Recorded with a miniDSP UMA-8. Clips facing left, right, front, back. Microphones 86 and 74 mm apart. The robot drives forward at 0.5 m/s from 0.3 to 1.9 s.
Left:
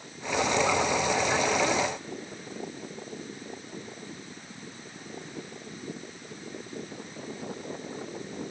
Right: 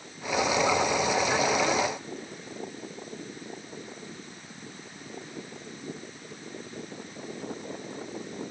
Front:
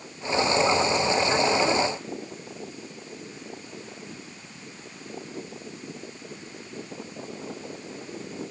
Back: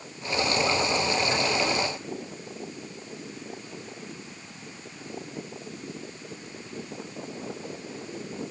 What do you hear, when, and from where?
Only background noise.